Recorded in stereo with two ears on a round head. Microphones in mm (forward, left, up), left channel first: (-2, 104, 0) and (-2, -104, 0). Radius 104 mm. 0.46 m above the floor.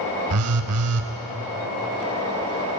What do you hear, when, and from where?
0.3 s a phone buzzing: 70° right (ahead or behind), 0.6 m